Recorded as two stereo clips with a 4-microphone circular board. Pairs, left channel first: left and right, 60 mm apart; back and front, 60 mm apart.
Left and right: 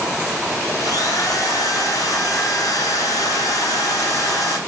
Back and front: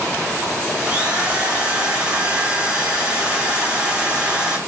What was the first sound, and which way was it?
A drill, 75° left.